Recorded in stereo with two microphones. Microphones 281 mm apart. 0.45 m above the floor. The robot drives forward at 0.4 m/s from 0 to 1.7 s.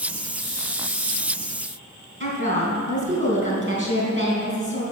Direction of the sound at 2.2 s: 40° right (ahead or behind).